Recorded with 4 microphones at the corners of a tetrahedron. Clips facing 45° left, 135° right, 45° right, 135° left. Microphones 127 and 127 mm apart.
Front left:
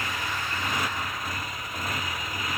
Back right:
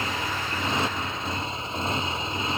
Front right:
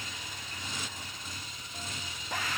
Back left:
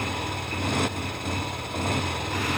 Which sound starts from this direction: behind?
A motorcycle, at 0.0 s.